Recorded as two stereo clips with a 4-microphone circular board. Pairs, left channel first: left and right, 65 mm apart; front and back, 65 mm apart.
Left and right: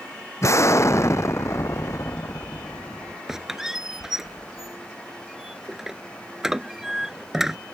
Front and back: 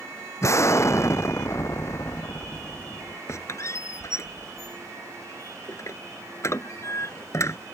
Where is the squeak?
10° right.